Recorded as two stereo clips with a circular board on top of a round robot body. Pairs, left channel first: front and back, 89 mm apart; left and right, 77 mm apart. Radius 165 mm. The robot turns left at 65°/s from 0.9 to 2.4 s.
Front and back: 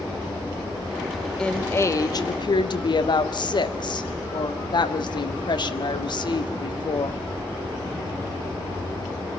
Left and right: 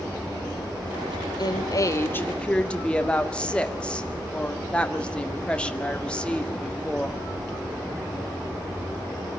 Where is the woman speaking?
80° left, 1.9 m; by 7.2 s 15° left, 1.9 m.